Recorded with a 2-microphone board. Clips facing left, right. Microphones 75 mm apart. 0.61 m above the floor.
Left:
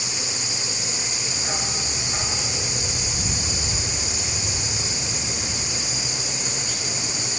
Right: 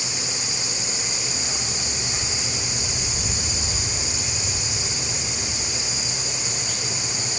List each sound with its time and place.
1.4 s a dog barking: 35° left (ahead or behind)